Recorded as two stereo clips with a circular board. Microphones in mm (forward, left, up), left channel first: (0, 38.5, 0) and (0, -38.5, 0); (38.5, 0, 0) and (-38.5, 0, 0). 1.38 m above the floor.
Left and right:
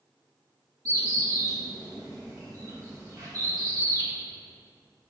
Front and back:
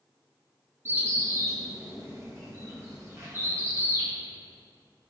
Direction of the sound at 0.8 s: 125° right.